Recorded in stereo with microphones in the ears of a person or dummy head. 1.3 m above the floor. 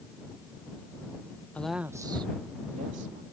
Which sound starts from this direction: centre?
A woman speaking, at 1.6 s.